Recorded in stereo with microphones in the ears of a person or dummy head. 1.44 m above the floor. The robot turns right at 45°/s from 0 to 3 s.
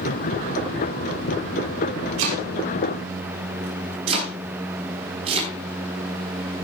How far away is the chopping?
About 6 m.